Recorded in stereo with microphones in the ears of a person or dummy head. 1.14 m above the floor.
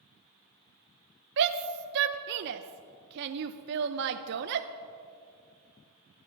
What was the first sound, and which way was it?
A shout, 55° right (ahead or behind).